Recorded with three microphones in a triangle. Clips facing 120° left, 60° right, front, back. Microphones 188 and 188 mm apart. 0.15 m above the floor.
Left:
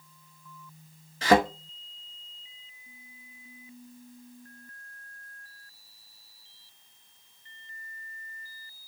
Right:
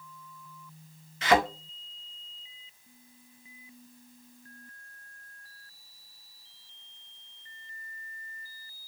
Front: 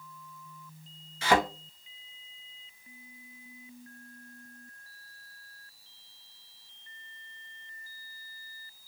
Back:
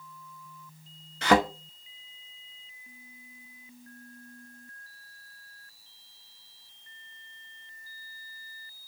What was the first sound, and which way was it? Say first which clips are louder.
A thud: left 3 dB, back 3 dB; 170° left.